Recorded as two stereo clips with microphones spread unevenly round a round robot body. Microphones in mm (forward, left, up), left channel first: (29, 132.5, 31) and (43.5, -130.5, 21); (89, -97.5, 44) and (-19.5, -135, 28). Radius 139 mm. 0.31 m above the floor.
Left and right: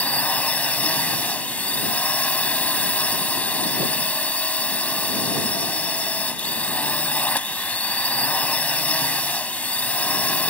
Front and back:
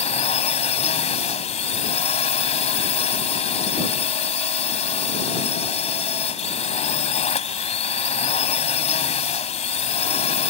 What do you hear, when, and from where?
0.0 s a drone: 10° left